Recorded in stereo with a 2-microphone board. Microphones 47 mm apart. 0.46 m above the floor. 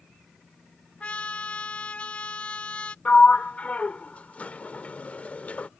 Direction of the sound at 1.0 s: 25° left (ahead or behind).